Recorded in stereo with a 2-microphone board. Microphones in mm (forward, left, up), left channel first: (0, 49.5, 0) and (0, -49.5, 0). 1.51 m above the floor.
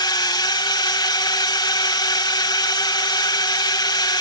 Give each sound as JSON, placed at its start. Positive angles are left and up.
{"t": 0.0, "sound": "a drone", "side_deg": 50}